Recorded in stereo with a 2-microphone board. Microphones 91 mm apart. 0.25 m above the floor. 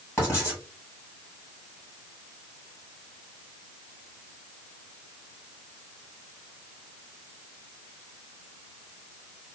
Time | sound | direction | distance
0.2 | writing | 35° left (ahead or behind) | 2 m